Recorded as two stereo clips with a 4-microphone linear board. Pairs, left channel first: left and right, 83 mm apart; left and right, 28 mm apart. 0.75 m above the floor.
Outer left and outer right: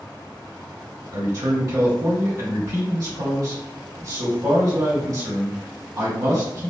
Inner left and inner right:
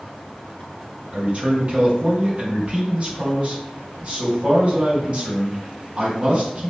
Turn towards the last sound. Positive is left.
turn(degrees=-60)  # may be behind; listen again after turning